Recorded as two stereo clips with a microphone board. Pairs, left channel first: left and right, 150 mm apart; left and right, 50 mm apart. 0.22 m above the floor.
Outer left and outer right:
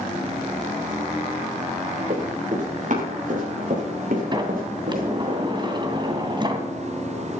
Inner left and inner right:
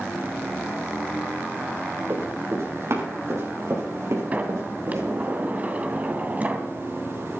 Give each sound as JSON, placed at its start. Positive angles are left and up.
{"t": 2.1, "sound": "running footsteps", "side_deg": -55, "distance_m": 8.0}
{"t": 4.3, "sound": "a sliding door", "side_deg": -30, "distance_m": 2.0}